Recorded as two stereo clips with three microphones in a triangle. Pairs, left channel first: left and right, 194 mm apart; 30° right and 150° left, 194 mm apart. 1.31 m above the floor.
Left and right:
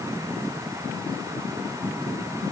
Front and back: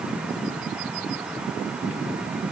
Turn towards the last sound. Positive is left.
No sound to turn to.